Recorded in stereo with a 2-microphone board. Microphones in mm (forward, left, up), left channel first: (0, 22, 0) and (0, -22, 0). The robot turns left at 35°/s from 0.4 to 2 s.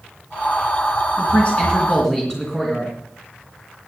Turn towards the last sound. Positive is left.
turn(degrees=15)  # may be behind; listen again after turning